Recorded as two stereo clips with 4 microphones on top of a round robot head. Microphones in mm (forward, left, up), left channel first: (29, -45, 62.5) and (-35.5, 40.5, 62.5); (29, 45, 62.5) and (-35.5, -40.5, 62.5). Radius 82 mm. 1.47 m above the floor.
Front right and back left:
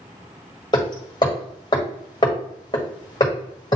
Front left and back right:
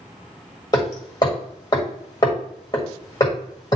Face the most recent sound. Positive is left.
turn(degrees=-5)